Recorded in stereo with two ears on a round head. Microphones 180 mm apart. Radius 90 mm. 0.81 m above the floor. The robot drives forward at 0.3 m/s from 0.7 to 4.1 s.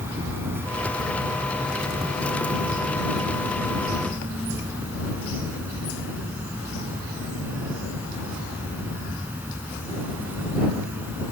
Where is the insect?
15° right (ahead or behind); by 11.3 s 10° right (ahead or behind).